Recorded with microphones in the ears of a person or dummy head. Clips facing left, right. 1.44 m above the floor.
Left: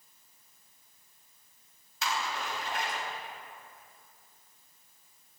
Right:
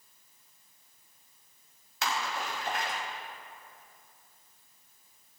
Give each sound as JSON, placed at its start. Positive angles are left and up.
{"t": 2.0, "sound": "a splash", "side_deg": -60, "distance_m": 3.0}